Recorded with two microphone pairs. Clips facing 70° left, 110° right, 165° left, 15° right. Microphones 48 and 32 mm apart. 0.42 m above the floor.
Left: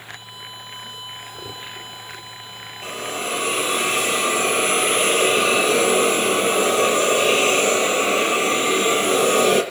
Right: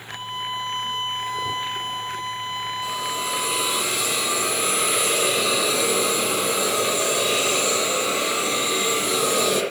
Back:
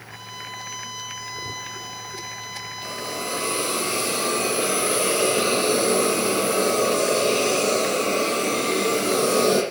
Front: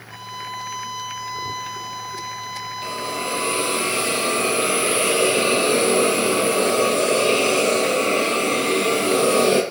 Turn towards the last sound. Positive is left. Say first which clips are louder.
# left 4 dB, front 3 dB
turn(degrees=25)